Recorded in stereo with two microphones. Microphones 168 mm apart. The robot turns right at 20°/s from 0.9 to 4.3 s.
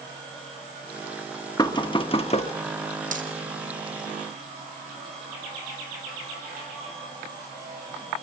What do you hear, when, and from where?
1.6 s knocking: 25° left (ahead or behind), 0.8 m; by 2.5 s 40° left (ahead or behind), 0.8 m
3.1 s a dropped coin: 50° right (ahead or behind), 2.5 m; by 3.3 s 55° right (ahead or behind), 2.5 m